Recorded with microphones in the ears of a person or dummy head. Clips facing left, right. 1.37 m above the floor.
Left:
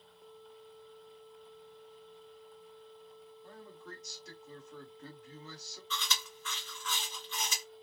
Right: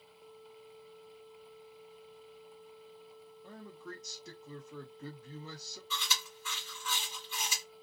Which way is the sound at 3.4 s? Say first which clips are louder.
Right 3 dB; 70° right (ahead or behind).